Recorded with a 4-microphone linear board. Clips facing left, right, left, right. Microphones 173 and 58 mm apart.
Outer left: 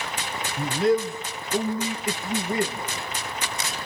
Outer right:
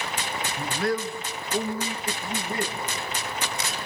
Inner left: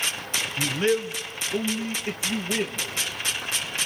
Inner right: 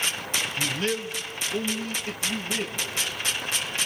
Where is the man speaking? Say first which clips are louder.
Outer left 6 dB, inner left 7 dB; 20° left (ahead or behind), 2.5 m.